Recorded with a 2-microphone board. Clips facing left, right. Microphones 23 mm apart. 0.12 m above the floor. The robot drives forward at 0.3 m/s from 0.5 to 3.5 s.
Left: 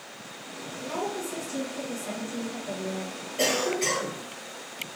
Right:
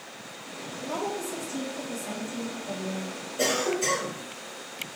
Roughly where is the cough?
Left.